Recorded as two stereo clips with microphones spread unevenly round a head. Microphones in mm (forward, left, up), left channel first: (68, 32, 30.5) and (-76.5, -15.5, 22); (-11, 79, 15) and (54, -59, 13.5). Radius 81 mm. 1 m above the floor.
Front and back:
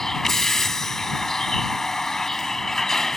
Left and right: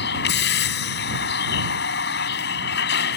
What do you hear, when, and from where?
0.0 s a vehicle: 105° left